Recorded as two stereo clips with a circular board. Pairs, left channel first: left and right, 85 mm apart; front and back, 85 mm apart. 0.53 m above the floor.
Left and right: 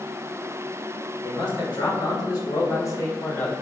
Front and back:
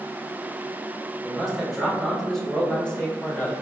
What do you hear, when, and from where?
1.2 s a man speaking: 90° left, 1.5 m; by 3.5 s 45° left, 0.7 m